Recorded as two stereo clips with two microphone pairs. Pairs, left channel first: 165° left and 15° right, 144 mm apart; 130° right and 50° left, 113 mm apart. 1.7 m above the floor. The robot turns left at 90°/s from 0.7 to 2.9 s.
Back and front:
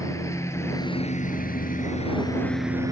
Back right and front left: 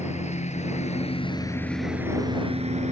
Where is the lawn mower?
125° right; by 2.9 s 50° left.